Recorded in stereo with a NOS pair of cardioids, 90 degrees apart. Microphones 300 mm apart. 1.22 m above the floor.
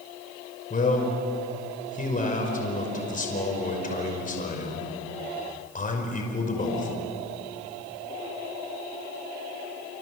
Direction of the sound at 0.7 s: 25° left.